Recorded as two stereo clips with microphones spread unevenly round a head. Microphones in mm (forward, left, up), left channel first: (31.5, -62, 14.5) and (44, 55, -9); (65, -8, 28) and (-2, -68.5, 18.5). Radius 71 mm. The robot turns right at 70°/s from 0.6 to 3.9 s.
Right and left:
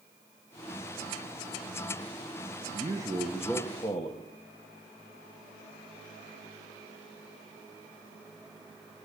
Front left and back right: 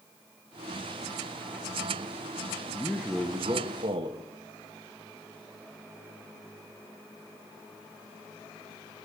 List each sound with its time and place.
2.7 s a man speaking: 125° left, 1.3 m; by 4.3 s 155° right, 1.3 m